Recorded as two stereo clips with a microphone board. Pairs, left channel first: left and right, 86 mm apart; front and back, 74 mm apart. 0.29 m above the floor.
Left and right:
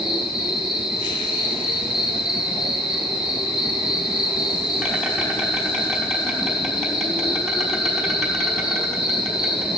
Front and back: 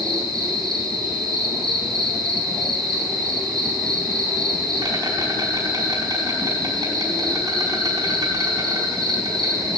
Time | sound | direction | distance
0.0 | an insect | straight behind | 4.5 m